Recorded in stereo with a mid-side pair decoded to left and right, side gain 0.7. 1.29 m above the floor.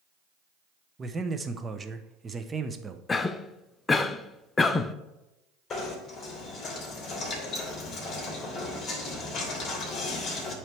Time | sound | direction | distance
1.0 | a man speaking | 20° right | 0.8 m
3.1 | a cough | 25° left | 0.5 m
5.7 | knocking | 35° left | 2.5 m